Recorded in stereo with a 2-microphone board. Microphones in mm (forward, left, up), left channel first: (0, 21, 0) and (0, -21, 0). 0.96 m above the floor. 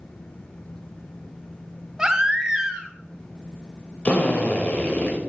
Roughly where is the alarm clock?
No alarm clock in this recording.